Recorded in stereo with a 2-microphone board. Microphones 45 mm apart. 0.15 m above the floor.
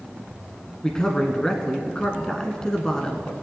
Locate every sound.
0.8 s a man speaking: 15° left (ahead or behind), 1.2 m